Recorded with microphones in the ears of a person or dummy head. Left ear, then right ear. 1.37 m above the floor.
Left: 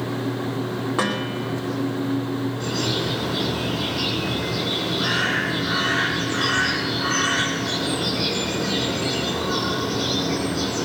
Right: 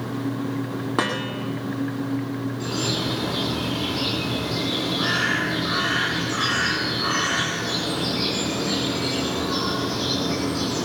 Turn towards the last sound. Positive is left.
turn(degrees=10)  # may be behind; listen again after turning